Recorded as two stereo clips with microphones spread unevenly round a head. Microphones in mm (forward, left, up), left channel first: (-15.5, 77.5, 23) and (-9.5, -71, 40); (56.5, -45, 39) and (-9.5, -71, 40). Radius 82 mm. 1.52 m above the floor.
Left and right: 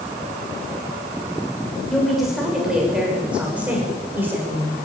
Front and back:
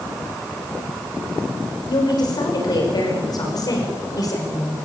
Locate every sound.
1.9 s a woman speaking: straight ahead, 7.5 m; by 4.9 s 15° right, 7.5 m